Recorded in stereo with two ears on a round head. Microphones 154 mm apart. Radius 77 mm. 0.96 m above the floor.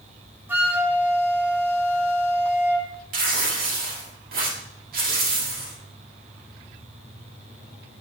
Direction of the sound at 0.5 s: 10° right (ahead or behind).